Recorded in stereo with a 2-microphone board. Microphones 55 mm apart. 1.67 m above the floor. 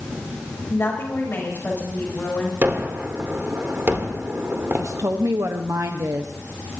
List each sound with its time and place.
0.7 s a woman speaking: 50° left (ahead or behind), 7.5 m; by 2.5 s 30° left (ahead or behind), 7.5 m
2.6 s a gunshot: 45° right (ahead or behind), 2 m
4.7 s a woman speaking: 70° right (ahead or behind), 0.9 m